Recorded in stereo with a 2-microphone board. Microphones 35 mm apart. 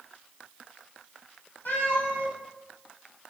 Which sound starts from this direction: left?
A cat meowing, at 1.6 s.